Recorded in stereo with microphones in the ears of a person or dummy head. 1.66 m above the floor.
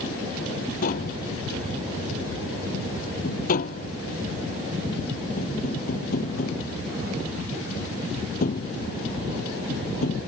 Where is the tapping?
50° left (ahead or behind).